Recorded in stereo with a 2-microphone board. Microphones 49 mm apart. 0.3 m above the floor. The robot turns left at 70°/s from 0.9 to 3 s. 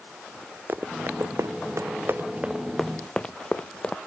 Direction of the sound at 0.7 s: 45° right (ahead or behind).